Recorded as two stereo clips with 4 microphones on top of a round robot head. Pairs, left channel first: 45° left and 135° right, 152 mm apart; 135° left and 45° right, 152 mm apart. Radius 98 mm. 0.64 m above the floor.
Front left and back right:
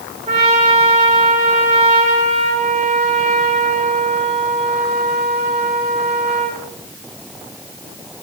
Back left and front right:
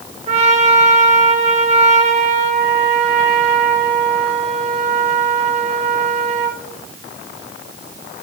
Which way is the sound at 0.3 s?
90° right.